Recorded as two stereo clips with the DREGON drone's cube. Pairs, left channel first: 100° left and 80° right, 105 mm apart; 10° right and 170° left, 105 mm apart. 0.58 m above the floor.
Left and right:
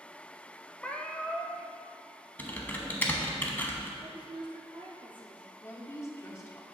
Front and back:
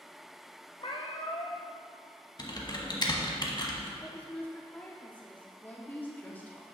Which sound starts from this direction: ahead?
A cat meowing, at 0.8 s.